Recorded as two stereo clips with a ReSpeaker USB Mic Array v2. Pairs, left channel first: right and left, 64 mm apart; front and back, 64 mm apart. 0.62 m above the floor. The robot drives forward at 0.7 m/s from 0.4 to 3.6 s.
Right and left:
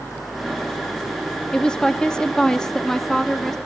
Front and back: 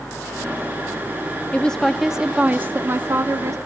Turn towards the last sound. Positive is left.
turn(degrees=-170)